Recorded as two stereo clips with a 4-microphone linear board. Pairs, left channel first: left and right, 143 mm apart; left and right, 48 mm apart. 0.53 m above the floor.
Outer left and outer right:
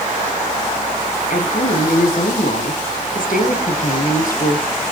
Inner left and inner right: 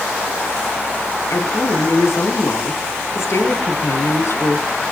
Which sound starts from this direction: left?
A woman speaking, at 1.3 s.